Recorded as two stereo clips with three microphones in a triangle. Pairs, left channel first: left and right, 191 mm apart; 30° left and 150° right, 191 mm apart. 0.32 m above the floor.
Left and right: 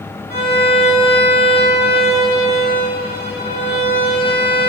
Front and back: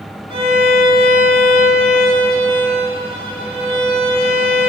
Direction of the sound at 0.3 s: 95° right.